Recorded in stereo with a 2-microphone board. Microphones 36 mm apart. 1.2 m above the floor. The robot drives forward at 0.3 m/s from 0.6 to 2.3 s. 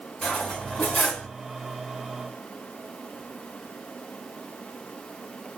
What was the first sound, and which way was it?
Cutlery clinking, 30° left (ahead or behind).